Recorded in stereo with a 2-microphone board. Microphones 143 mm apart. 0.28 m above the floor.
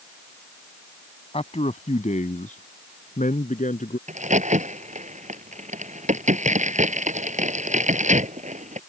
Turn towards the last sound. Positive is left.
turn(degrees=-55)  # may be behind; listen again after turning